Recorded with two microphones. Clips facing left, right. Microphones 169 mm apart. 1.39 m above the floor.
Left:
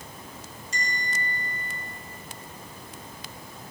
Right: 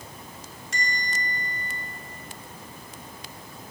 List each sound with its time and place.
0.7 s a bell: 75° right (ahead or behind), 3.5 m